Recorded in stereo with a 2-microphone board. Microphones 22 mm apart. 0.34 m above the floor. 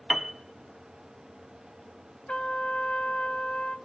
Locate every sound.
0.1 s a piano: 20° right (ahead or behind), 0.5 m
2.3 s a trumpet: 60° left (ahead or behind), 0.6 m